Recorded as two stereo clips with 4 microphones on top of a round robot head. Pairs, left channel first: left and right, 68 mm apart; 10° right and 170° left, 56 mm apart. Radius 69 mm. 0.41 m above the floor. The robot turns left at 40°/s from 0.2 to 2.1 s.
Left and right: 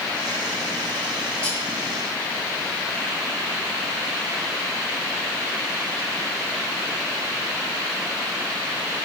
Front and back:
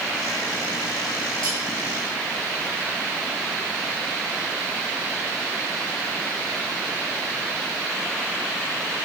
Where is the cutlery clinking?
165° left, 5.5 m; by 1.6 s 155° left, 5.5 m.